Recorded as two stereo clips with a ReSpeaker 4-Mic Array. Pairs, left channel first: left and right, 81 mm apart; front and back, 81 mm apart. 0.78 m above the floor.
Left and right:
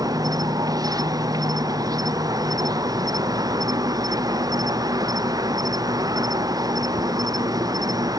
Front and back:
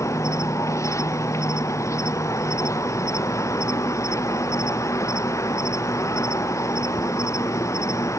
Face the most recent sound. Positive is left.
turn(degrees=-50)